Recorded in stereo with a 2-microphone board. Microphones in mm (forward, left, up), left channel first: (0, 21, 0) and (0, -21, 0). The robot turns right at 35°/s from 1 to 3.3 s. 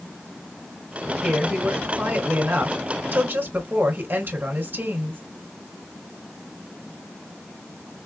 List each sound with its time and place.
1.2 s a woman speaking: 150° right, 2 m; by 5.2 s 80° right, 2 m